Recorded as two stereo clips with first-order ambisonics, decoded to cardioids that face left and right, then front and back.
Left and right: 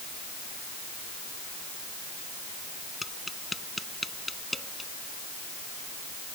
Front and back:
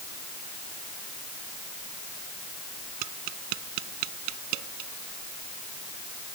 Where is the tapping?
175° left.